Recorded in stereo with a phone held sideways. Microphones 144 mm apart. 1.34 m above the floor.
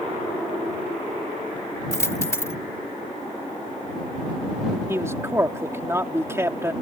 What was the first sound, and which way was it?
A dropped coin, 20° left (ahead or behind).